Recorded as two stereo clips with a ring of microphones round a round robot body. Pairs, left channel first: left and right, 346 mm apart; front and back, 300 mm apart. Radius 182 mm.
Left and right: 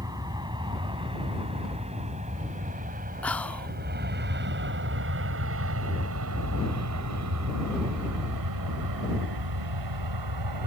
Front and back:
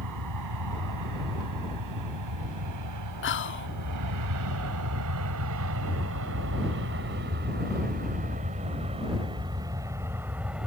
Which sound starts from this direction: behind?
An aircraft, at 0.0 s.